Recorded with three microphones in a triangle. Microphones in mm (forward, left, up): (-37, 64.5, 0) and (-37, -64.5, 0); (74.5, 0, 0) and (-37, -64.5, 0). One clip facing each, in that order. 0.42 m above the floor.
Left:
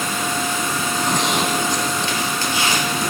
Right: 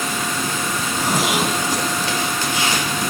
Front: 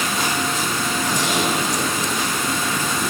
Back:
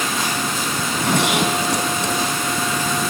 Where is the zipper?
175° right, 3.5 m.